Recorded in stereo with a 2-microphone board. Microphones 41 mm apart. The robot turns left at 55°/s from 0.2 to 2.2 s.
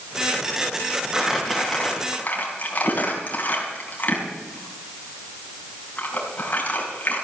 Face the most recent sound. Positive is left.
turn(degrees=40)  # may be behind; listen again after turning